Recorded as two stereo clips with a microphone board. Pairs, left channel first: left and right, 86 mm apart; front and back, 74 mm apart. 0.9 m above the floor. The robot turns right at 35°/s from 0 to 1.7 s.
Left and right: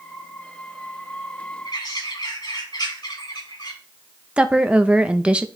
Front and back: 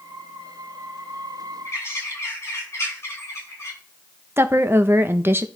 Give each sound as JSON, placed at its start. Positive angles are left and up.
{"t": 1.6, "sound": "a bird", "azimuth_deg": 55, "distance_m": 6.5}
{"t": 4.4, "sound": "a woman speaking", "azimuth_deg": -155, "distance_m": 0.6}